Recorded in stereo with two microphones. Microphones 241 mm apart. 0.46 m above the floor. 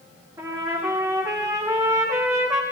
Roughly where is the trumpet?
Centre.